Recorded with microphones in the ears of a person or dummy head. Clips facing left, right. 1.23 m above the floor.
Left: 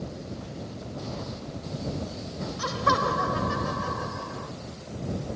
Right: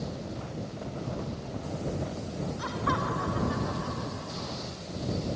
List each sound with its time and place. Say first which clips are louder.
2.6 s laughter: left 7 dB; 75° left (ahead or behind); by 4.5 s 85° left